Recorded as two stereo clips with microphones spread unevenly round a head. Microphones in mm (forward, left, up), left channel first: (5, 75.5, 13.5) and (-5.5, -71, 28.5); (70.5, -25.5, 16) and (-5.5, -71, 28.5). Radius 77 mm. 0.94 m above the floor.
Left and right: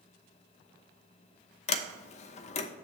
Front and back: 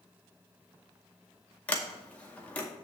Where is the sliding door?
100° left, 0.8 m.